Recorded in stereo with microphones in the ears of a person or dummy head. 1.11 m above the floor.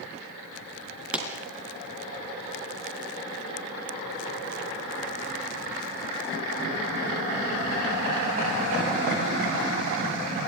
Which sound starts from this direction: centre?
A pop, at 1.1 s.